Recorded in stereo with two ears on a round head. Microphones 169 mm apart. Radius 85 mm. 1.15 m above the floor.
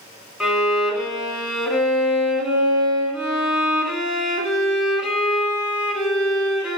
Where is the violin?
Centre (ahead or behind), 1.7 m.